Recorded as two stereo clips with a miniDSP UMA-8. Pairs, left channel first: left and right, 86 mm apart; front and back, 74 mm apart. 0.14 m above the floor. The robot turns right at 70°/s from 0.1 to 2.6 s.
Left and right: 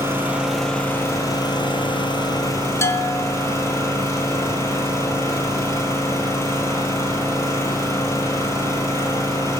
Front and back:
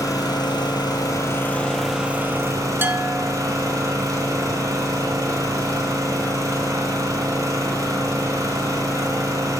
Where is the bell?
130° left, 0.6 m.